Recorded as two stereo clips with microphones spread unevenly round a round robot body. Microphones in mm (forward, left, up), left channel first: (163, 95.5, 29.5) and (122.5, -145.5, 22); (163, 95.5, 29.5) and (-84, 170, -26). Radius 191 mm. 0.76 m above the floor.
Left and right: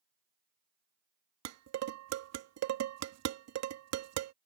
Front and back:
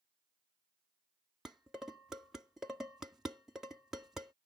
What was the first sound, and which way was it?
Dishes clattering, 115° right.